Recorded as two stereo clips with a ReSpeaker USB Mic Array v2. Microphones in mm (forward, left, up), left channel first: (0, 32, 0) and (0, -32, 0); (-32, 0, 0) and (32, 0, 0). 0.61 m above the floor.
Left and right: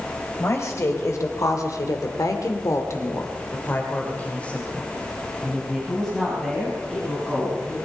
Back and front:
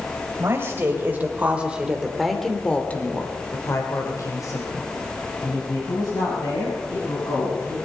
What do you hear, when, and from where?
0.4 s a woman speaking: 50° left, 4 m; by 7.8 s straight behind, 7.5 m